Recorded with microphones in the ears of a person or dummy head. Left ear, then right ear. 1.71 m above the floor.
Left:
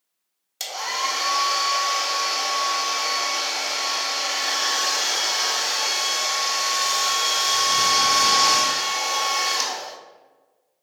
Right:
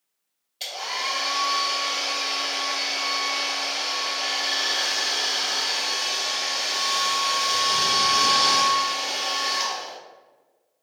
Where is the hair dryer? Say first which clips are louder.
Left 3 dB; 55° left (ahead or behind), 1.1 m.